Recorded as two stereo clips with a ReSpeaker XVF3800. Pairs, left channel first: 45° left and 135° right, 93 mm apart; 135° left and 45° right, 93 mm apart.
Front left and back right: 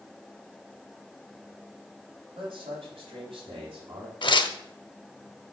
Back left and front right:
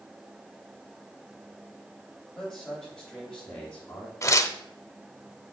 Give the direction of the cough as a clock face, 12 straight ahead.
I don't hear a cough.